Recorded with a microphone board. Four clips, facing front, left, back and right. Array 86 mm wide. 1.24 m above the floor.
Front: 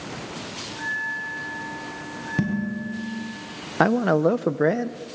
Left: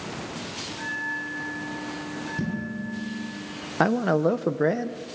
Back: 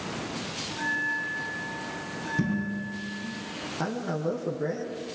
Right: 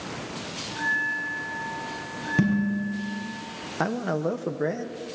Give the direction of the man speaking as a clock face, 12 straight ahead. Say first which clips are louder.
Left 5 dB, front 12 dB; 11 o'clock.